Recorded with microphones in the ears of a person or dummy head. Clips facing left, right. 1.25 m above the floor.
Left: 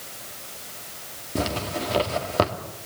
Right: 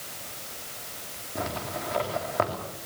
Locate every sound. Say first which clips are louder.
1.4 s a zipper: left 6 dB; 50° left (ahead or behind), 2.5 m